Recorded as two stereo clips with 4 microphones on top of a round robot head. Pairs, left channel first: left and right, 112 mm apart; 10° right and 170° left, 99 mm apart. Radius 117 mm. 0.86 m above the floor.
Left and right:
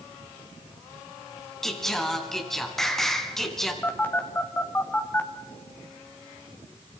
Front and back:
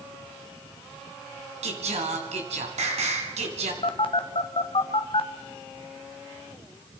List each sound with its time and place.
1.6 s singing: 175° left, 3 m
3.8 s a phone buzzing: 15° left, 1.9 m